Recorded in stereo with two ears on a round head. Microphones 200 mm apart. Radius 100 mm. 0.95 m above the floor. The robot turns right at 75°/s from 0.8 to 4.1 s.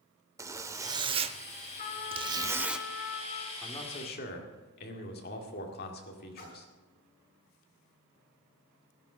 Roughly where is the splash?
Left.